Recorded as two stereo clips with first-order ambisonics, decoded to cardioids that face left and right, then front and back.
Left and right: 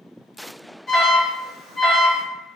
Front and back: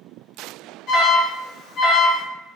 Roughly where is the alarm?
Ahead left.